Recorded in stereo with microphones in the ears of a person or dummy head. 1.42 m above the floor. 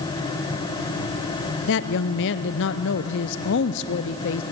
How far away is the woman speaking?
About 0.6 m.